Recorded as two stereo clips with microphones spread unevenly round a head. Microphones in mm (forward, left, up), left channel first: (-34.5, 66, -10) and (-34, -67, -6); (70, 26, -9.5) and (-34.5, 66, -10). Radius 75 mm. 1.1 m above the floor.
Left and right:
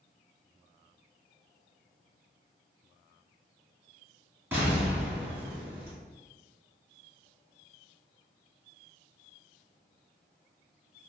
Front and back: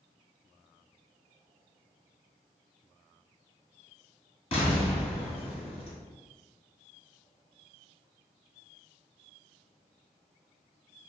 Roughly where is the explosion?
Ahead right.